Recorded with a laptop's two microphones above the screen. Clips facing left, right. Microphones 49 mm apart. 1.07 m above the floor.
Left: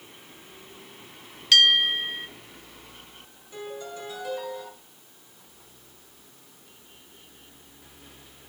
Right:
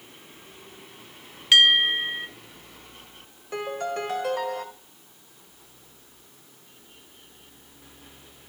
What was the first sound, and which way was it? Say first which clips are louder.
A bell: right 1 dB; 20° right (ahead or behind).